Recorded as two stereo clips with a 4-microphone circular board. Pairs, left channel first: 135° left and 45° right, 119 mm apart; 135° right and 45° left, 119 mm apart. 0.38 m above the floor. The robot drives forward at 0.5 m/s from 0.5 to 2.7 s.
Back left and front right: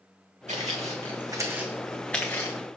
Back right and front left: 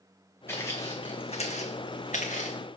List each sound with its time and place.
0.5 s footsteps: 65° right, 1.6 m; by 2.6 s 160° right, 1.8 m